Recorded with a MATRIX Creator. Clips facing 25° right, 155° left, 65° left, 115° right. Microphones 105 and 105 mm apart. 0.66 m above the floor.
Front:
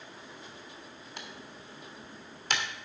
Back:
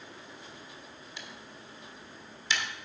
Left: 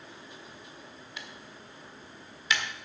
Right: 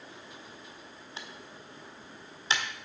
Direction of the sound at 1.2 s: 55° right.